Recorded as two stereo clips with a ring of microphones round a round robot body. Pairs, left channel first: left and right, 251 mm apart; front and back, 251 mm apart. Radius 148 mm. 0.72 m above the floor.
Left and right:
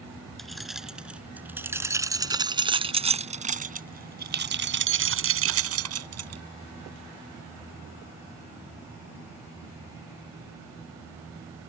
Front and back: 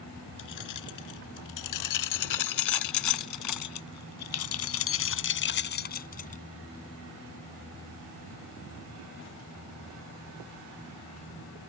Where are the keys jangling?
Straight ahead; by 6.4 s 65° right.